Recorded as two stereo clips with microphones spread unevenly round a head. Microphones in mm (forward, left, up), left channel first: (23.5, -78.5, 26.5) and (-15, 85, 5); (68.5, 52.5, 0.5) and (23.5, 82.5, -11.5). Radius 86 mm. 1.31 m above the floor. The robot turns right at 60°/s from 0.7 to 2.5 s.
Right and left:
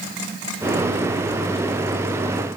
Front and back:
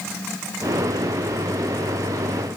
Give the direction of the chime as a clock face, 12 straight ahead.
No chime in this recording.